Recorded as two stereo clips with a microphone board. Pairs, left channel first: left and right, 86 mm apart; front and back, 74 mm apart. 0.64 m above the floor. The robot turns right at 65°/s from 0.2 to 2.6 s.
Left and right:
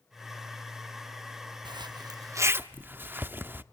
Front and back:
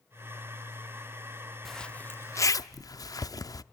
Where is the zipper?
90° right, 0.6 m; by 3.6 s 25° right, 0.6 m.